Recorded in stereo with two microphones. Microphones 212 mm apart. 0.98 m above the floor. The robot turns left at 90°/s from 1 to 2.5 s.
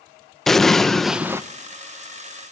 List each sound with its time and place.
0.5 s an explosion: centre (ahead or behind), 0.9 m; by 1.4 s 15° right (ahead or behind), 0.9 m